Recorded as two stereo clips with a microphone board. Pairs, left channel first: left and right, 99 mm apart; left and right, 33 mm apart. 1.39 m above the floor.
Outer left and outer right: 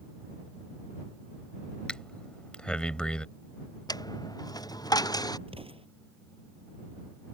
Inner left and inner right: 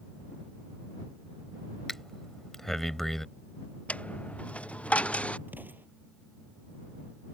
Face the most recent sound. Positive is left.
turn(degrees=-75)  # may be behind; listen again after turning